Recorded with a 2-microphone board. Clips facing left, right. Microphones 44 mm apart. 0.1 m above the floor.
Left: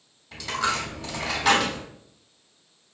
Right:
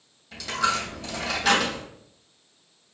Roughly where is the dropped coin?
Centre.